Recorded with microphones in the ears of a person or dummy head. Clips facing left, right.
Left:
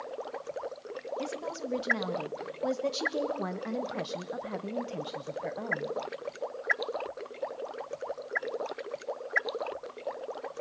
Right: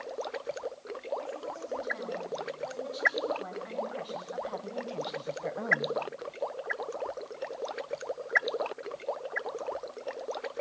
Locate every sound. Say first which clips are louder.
1.2 s a woman speaking: left 3 dB; 85° left, 3.5 m; by 6.0 s 15° right (ahead or behind), 1.5 m